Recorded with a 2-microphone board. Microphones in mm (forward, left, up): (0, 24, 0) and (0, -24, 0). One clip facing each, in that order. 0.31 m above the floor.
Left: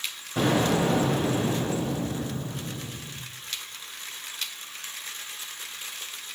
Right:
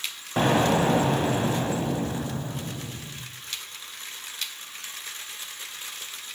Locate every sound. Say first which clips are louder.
0.4 s an explosion: right 2 dB; 40° right (ahead or behind), 2 m